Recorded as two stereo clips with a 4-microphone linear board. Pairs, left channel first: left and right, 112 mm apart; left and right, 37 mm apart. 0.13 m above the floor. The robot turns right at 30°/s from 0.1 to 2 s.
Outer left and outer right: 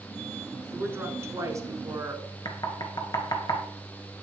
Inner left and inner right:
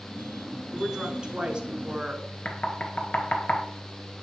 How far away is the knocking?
About 1.6 m.